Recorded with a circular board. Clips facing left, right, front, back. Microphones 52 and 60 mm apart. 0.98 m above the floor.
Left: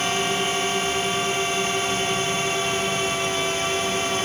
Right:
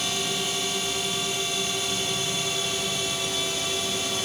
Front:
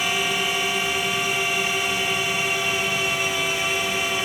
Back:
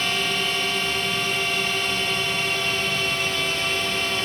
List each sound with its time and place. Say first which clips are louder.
0.0 s a drone: left 6 dB, front 1 dB; 75° left